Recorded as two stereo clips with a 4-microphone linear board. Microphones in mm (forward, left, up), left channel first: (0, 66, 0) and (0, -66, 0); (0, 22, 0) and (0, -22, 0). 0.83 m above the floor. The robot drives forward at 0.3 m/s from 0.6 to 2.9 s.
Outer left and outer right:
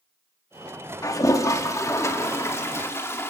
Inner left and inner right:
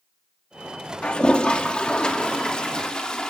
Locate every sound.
1.0 s a toilet flushing: 25° left (ahead or behind), 1.4 m; by 3.3 s 20° left (ahead or behind), 1.9 m